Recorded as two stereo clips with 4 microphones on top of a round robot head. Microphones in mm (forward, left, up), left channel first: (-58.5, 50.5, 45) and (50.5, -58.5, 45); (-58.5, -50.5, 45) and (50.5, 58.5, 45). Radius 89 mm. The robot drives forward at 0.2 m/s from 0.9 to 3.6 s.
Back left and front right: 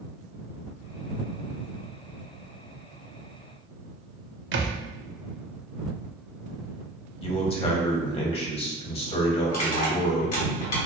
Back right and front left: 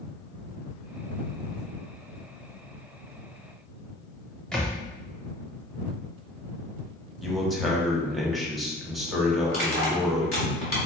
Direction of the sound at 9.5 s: 175° left.